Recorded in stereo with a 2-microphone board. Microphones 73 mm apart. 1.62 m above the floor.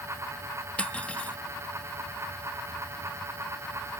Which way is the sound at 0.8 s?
15° left (ahead or behind).